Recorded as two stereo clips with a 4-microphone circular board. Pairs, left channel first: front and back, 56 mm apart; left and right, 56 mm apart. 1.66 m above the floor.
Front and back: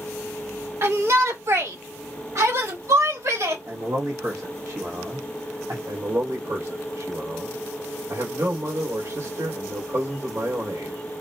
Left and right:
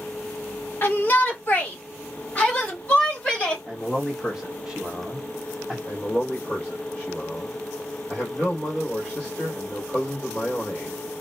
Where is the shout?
140° left, 1.4 m; by 3.6 s 165° left, 3 m.